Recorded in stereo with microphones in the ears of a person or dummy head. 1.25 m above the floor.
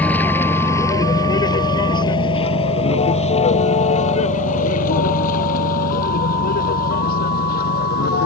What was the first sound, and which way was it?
A vehicle, 5° left (ahead or behind).